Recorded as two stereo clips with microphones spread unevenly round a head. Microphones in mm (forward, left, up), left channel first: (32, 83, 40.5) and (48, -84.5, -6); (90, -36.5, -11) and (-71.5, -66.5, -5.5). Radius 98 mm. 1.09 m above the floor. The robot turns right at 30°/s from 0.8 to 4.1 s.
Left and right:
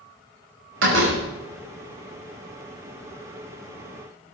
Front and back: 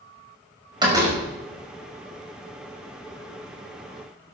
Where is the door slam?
105° right, 5.5 m; by 1.2 s 95° right, 5.5 m.